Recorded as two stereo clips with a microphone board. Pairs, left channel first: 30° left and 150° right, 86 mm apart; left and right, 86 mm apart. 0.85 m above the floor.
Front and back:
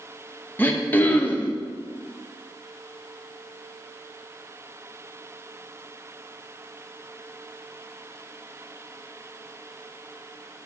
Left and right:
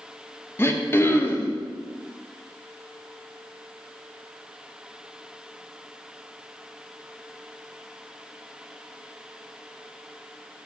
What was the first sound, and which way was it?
Throat clearing, 65° left.